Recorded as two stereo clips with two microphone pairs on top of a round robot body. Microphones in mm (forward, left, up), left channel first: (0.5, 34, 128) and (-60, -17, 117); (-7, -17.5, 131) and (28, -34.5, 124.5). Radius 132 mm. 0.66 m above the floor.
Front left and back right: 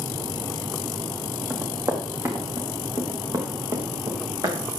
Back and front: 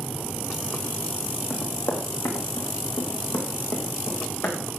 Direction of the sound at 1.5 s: 155° left.